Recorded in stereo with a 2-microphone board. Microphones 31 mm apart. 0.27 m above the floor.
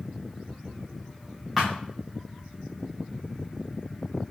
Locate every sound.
1.6 s a thud: 5° right (ahead or behind), 2 m